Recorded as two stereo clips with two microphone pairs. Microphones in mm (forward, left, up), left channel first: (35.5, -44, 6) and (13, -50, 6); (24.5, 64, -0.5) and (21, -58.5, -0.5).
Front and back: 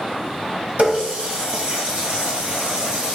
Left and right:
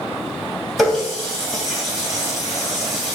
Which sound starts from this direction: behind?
A running tap, at 0.8 s.